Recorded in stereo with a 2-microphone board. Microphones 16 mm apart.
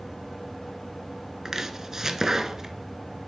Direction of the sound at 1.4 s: 35° right (ahead or behind).